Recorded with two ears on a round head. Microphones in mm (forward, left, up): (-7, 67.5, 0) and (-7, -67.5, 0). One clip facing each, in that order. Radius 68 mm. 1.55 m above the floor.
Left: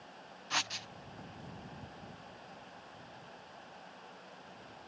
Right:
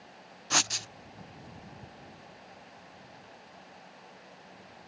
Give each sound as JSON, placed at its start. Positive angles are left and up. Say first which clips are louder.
{"t": 0.5, "sound": "writing", "louder": "right 6 dB", "side_deg": -55}